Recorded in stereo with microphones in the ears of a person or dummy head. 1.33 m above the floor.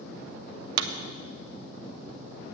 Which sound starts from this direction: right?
A clap, at 0.8 s.